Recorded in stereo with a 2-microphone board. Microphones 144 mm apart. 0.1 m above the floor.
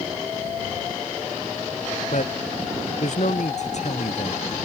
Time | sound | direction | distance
2.1 | a man speaking | 60° left (ahead or behind) | ?